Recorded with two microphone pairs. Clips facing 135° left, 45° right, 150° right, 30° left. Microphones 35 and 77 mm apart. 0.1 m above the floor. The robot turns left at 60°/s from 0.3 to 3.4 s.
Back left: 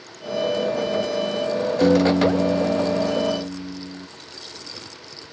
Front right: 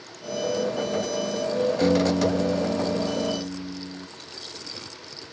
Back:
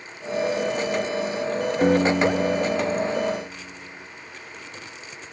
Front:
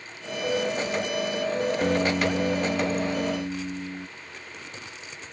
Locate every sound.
1.8 s a piano: 160° left; by 4.1 s 65° left